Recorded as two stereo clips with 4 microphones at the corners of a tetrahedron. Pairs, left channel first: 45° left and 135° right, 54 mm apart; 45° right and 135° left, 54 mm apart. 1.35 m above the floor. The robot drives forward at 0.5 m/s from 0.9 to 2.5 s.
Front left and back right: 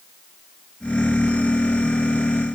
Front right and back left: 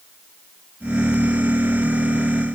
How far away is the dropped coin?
I don't hear a dropped coin.